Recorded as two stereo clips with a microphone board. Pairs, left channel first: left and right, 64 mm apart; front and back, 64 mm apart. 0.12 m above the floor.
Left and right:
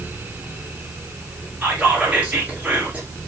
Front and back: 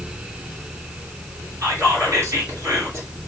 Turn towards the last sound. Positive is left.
turn(degrees=-150)